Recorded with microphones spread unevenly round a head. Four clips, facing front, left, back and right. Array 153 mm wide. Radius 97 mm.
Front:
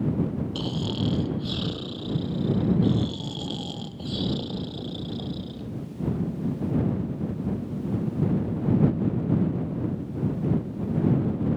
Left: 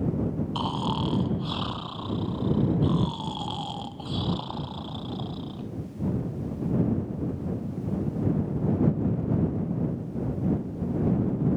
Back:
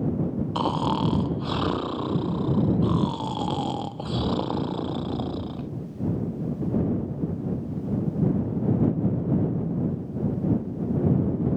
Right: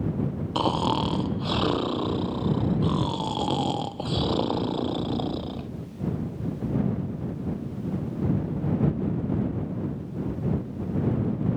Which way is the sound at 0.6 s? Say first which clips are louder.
Right 9 dB, back 5 dB; 135° right.